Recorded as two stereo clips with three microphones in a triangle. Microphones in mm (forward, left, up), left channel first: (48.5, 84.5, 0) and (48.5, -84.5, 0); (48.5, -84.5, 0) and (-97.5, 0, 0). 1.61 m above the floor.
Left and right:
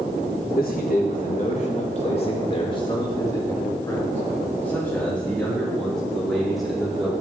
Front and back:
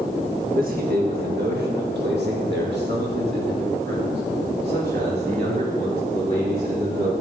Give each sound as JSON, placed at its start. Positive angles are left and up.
{"t": 0.5, "sound": "a man speaking", "azimuth_deg": 115, "distance_m": 1.9}